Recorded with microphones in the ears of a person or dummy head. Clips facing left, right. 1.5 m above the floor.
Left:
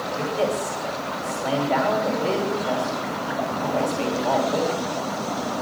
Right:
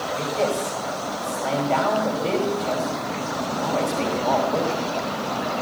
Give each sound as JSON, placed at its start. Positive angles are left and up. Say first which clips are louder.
{"t": 0.1, "sound": "a man speaking", "louder": "even", "side_deg": 10, "distance_m": 5.5}